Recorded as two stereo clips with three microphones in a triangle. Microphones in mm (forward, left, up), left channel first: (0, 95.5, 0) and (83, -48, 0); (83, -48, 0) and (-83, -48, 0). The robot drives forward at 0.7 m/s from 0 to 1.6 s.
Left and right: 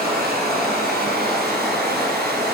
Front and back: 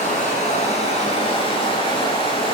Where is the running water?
40° right, 4 m; by 2.5 s 55° right, 3 m.